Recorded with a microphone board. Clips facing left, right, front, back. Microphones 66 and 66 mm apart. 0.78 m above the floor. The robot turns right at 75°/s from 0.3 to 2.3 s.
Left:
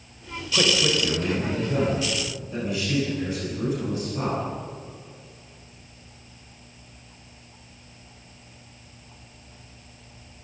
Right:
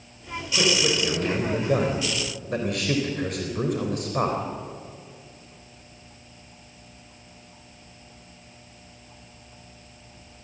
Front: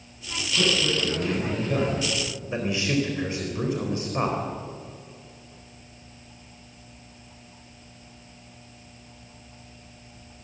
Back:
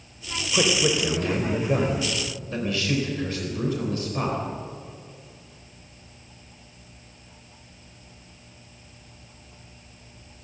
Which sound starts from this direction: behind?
A man speaking, at 0.5 s.